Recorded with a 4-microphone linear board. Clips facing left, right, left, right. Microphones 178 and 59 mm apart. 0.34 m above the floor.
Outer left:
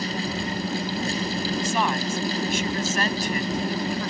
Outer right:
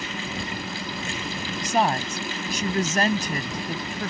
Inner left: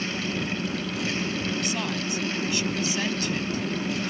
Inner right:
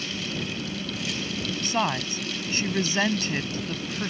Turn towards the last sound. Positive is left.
turn(degrees=-40)  # may be behind; listen again after turning